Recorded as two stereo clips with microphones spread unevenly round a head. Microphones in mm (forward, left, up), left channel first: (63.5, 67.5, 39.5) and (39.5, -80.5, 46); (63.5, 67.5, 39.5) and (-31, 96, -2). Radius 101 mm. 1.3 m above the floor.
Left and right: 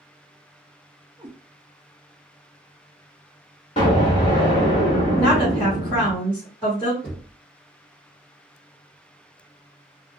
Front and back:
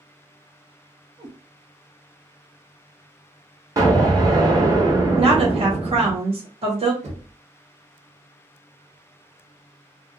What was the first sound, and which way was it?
A cat meowing, 150° right.